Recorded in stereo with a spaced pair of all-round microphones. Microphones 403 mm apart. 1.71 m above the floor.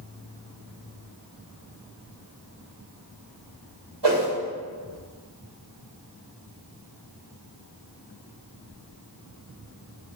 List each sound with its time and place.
4.0 s a whoosh: 75° right (ahead or behind), 4 m